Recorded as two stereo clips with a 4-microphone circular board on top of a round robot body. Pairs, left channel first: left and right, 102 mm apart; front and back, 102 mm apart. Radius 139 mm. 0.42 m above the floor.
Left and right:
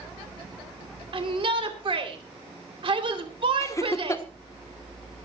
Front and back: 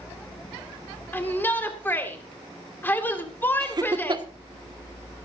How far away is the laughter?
About 1.6 m.